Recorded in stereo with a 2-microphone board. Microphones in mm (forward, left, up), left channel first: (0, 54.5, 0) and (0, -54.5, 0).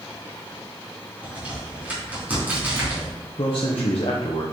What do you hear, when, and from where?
1.2 s a crack: 15° right (ahead or behind), 3.5 m
3.4 s a man speaking: 55° left (ahead or behind), 0.9 m